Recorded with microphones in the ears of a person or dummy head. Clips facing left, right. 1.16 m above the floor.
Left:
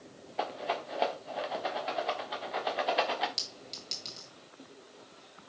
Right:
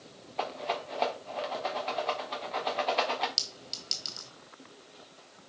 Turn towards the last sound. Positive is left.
turn(degrees=-5)  # may be behind; listen again after turning